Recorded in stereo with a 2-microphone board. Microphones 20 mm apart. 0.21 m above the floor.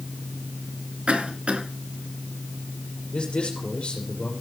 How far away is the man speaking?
About 5 m.